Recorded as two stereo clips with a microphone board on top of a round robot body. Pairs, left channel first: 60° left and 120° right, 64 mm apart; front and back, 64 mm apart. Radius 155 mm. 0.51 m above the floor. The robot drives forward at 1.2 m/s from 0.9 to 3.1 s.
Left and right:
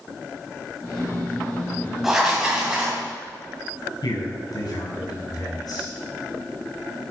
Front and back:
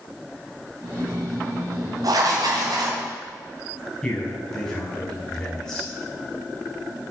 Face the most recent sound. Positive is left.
turn(degrees=85)